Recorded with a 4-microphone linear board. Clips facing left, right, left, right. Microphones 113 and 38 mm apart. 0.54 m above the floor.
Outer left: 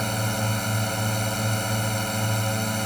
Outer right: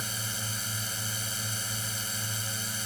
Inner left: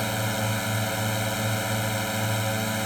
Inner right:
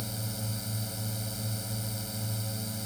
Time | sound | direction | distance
0.0 | a drone | 65° left (ahead or behind) | ?